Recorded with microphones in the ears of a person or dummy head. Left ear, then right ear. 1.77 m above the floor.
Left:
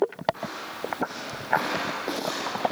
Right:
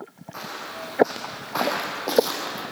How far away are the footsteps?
About 7 m.